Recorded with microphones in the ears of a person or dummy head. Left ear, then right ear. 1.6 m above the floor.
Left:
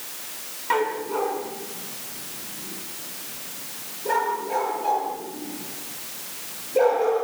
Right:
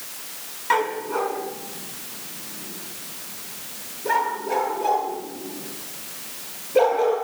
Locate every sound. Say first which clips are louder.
0.7 s a dog barking: right 2 dB; 20° right (ahead or behind), 3.5 m; by 7.2 s 35° right (ahead or behind), 11.5 m